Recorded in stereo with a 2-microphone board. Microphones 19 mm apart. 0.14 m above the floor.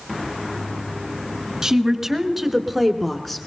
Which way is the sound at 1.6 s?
30° right (ahead or behind).